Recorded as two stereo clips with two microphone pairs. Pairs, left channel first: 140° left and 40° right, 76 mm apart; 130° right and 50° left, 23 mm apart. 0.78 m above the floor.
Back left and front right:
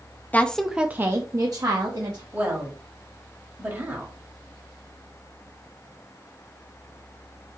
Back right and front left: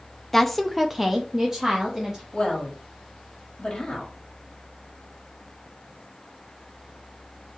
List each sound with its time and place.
0.3 s a woman speaking: 170° left, 0.6 m; by 2.2 s 20° right, 1.3 m
2.3 s a woman speaking: 95° right, 1.7 m